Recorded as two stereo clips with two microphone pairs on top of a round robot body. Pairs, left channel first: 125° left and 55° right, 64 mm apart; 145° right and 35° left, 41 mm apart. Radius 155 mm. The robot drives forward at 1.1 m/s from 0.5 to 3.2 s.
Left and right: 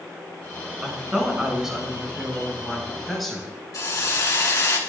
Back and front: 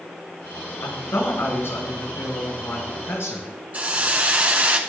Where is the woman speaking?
130° right, 5.5 m; by 3.5 s 145° right, 7.5 m.